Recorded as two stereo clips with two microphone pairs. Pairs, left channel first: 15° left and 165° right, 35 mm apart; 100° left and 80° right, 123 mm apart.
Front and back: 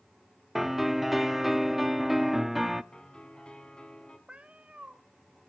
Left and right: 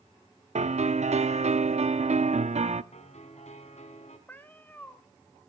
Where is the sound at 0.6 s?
85° right, 0.6 m.